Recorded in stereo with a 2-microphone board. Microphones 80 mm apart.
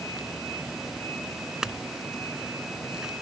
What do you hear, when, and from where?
1.6 s a clink: 10° right (ahead or behind)